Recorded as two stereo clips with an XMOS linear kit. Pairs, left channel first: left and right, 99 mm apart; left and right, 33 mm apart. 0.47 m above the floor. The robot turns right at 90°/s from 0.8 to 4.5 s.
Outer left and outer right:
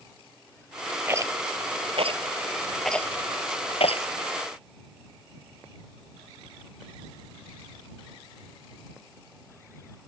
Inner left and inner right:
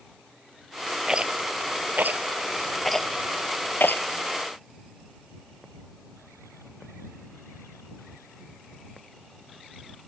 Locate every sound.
1.1 s a rattle: 20° right (ahead or behind); by 4.1 s 70° left (ahead or behind)